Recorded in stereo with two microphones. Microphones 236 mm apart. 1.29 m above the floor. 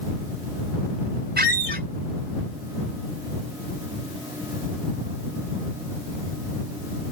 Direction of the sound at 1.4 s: 45° right (ahead or behind).